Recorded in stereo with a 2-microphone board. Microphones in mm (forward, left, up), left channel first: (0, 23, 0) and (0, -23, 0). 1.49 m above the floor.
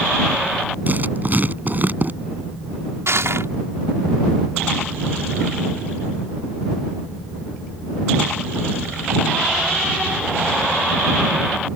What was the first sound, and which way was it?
Writing, 40° right (ahead or behind).